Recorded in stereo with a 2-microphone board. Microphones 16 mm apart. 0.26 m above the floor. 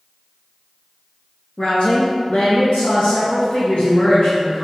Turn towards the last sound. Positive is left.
turn(degrees=65)  # may be behind; listen again after turning